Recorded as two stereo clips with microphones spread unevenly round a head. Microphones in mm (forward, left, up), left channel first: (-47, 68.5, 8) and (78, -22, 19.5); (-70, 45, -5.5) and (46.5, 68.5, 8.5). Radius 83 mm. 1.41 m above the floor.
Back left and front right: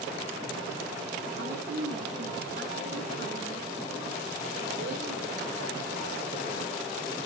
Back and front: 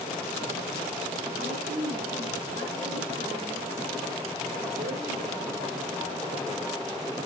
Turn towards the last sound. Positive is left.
turn(degrees=-5)